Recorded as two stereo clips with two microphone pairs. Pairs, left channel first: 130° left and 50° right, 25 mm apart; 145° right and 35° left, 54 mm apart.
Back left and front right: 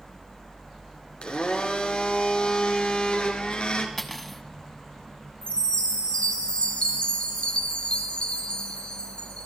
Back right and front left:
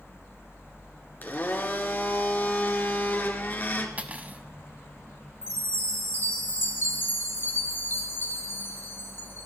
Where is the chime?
165° left, 2 m.